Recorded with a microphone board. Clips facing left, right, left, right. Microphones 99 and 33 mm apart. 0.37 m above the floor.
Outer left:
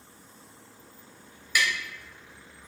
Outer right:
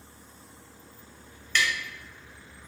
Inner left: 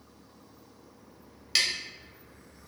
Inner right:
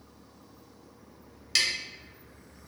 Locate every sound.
1.6 s tapping: 10° left (ahead or behind), 0.6 m